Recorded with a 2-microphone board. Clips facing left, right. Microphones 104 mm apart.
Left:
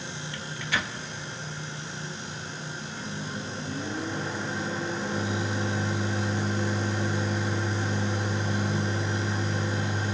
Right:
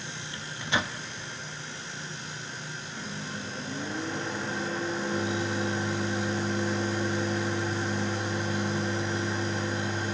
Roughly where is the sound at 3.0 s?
Centre.